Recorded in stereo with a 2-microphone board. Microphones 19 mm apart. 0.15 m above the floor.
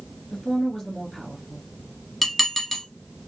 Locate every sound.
0.3 s a woman speaking: 25° left (ahead or behind), 2.5 m
2.2 s dishes clattering: 10° left (ahead or behind), 1.3 m